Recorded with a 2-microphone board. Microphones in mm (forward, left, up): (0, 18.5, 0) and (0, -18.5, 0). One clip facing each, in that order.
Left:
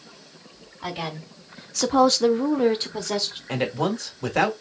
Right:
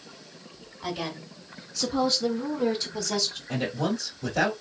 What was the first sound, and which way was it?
A woman speaking, 30° left (ahead or behind).